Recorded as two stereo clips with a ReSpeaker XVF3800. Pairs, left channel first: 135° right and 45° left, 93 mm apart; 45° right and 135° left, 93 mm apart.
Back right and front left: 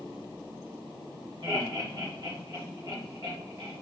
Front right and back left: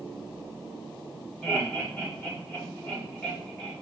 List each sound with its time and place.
1.4 s laughter: 25° left, 1.7 m